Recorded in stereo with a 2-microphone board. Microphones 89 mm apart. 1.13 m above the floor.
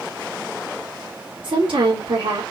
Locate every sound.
1.4 s a woman speaking: 70° right (ahead or behind), 2.5 m